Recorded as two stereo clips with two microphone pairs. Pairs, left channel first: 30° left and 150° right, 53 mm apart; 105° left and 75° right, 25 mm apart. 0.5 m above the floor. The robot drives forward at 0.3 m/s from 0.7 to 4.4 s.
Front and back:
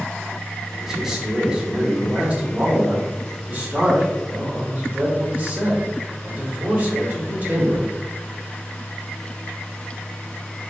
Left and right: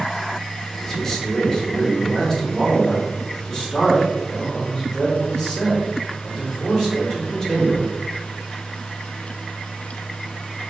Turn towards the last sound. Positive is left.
turn(degrees=170)